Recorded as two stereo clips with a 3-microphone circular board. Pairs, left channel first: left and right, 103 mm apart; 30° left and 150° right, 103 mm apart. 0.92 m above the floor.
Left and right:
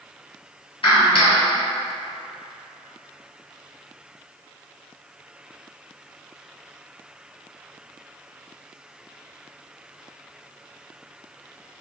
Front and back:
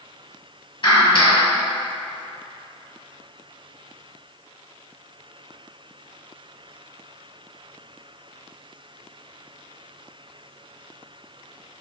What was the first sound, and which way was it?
A clap, 65° left.